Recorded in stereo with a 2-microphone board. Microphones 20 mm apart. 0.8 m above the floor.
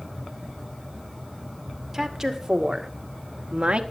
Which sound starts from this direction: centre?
A woman speaking, at 1.9 s.